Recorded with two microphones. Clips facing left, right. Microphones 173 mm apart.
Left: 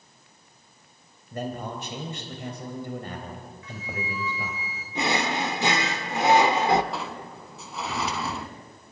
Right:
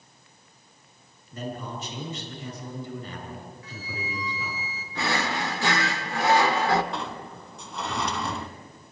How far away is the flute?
About 1.9 m.